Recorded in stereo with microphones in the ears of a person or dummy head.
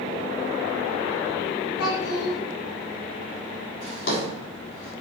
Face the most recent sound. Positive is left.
turn(degrees=45)  # may be behind; listen again after turning